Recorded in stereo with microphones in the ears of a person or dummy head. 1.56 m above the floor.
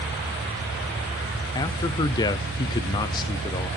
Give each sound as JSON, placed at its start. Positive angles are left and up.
{"t": 1.6, "sound": "a man speaking", "side_deg": 25, "distance_m": 0.6}